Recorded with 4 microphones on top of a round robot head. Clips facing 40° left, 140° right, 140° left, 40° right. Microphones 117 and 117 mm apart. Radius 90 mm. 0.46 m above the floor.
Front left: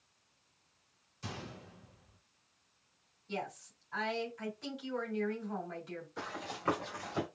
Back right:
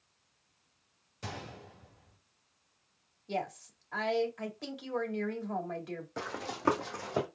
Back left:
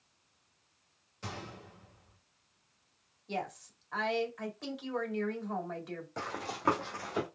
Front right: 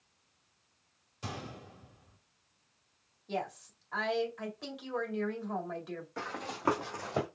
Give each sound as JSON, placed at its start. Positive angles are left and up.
{"t": 1.2, "sound": "a gunshot", "azimuth_deg": -110, "distance_m": 1.7}
{"t": 3.3, "sound": "a woman speaking", "azimuth_deg": -125, "distance_m": 2.0}
{"t": 6.2, "sound": "running footsteps", "azimuth_deg": -145, "distance_m": 1.8}